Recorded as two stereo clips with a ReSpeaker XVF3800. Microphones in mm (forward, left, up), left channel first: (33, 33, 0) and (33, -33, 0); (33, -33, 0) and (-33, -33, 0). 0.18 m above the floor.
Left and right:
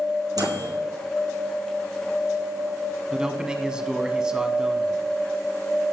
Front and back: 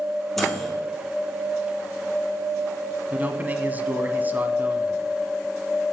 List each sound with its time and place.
0.4 s a microwave: 85° right, 3.5 m
3.1 s a man speaking: 155° right, 1.1 m